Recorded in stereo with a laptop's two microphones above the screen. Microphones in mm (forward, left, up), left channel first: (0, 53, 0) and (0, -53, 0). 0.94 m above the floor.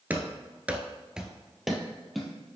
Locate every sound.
0.1 s running footsteps: 15° right (ahead or behind), 1.0 m; by 2.3 s centre (ahead or behind), 2.0 m